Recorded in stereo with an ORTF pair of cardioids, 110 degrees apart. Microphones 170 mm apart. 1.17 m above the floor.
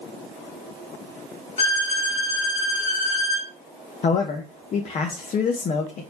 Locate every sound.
1.6 s a violin: 40° left, 2.5 m
4.0 s a man speaking: 45° left, 0.9 m